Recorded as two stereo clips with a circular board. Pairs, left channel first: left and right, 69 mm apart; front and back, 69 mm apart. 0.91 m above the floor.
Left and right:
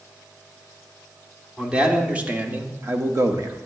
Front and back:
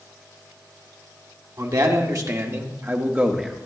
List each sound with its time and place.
1.6 s a man speaking: 165° right, 1.6 m; by 3.7 s 100° right, 1.1 m